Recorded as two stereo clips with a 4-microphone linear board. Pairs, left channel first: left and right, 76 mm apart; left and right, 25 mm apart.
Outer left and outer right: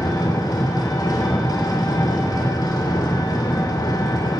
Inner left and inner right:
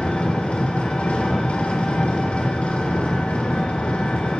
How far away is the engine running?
About 2 m.